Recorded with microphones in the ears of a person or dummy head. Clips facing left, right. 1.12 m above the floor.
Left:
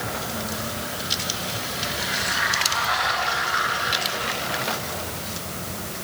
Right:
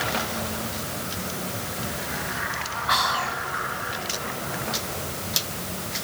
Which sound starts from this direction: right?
Whispering, at 2.9 s.